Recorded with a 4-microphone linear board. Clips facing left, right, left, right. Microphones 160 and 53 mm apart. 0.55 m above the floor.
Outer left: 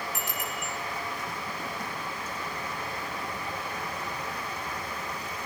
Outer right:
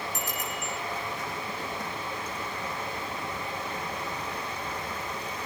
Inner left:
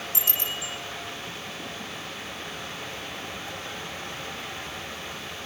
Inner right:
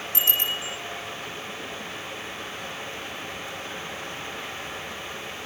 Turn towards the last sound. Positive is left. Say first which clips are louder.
# outer right 1 dB, inner right 8 dB
turn(degrees=-40)  # may be behind; listen again after turning